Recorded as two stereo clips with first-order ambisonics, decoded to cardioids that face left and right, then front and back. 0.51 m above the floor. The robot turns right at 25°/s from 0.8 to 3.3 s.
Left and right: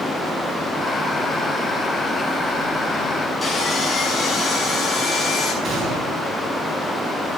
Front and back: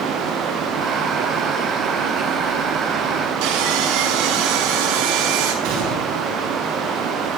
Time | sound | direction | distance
3.4 | sawing | 170° left | 5.5 m
5.6 | a gunshot | 155° right | 6.5 m